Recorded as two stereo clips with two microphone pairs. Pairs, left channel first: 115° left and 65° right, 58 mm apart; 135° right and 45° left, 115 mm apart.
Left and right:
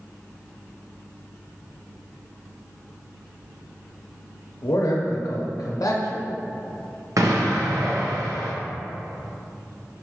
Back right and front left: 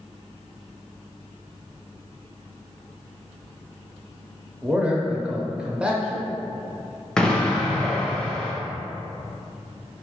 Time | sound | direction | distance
4.6 | a man speaking | 120° left | 0.6 m
7.2 | an explosion | 50° right | 0.6 m